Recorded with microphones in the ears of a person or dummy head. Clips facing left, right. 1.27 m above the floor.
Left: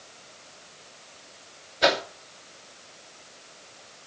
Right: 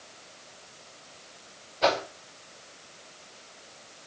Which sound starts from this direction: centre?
A whoosh, at 1.8 s.